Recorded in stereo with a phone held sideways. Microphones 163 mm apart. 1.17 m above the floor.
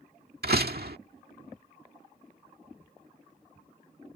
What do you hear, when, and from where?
0.4 s a door slam: 75° right (ahead or behind)